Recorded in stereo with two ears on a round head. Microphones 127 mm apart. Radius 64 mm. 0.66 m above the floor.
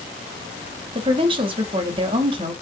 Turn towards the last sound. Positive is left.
turn(degrees=-35)  # may be behind; listen again after turning